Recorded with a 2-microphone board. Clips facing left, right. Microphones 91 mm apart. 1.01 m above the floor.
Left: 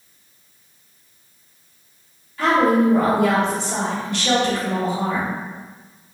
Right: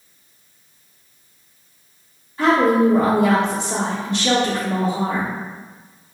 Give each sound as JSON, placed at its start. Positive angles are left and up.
{"t": 2.4, "sound": "a woman speaking", "side_deg": -30, "distance_m": 1.0}